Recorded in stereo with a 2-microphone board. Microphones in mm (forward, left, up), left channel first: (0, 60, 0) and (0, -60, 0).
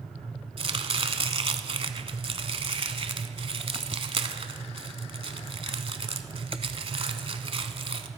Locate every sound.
0.6 s chopping: 50° right (ahead or behind), 0.8 m